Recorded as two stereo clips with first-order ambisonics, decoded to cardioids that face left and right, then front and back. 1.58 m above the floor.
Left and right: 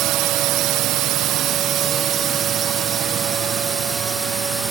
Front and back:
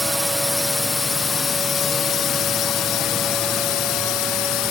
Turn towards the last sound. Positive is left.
turn(degrees=-10)